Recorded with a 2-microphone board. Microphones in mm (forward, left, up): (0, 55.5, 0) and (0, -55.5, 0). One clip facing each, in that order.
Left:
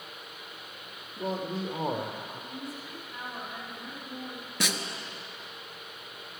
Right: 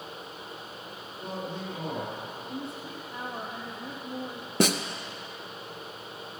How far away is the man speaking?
About 3 m.